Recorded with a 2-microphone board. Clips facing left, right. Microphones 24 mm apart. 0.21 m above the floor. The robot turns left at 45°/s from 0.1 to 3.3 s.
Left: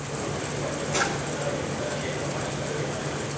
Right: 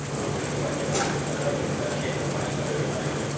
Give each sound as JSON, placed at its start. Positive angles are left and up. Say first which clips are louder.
{"t": 0.9, "sound": "a drawer", "louder": "left 2 dB", "side_deg": 5, "distance_m": 5.5}